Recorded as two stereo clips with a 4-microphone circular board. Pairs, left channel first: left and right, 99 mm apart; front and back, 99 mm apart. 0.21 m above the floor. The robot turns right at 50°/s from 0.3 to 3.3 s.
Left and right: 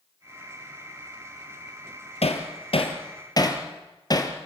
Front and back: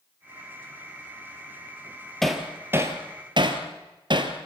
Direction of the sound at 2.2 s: 85° left.